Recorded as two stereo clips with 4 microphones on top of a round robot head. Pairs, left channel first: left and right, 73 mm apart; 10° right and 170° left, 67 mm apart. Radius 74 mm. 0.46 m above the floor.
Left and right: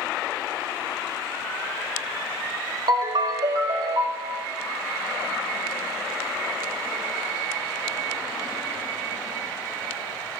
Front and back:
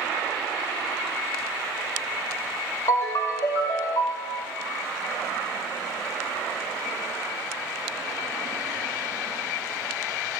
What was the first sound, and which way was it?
A ringtone, 60° right.